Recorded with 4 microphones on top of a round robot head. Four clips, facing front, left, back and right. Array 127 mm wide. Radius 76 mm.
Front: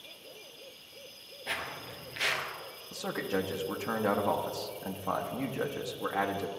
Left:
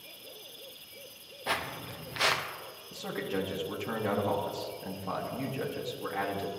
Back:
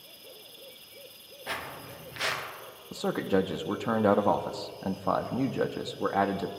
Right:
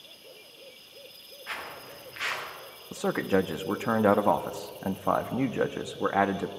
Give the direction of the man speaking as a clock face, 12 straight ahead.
4 o'clock.